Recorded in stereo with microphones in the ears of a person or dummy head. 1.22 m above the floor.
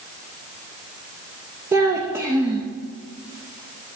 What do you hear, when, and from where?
1.7 s a child speaking: 10° right (ahead or behind), 0.5 m